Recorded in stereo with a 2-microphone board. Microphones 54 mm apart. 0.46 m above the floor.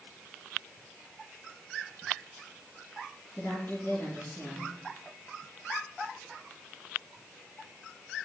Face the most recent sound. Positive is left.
turn(degrees=35)  # may be behind; listen again after turning